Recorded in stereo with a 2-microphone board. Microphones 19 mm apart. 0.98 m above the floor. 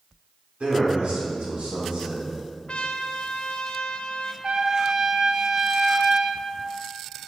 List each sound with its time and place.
0.6 s a man speaking: 75° right (ahead or behind), 3.5 m; by 2.3 s 65° right (ahead or behind), 4.5 m
2.7 s a trumpet: 55° left (ahead or behind), 0.7 m
4.4 s a trumpet: 40° right (ahead or behind), 0.7 m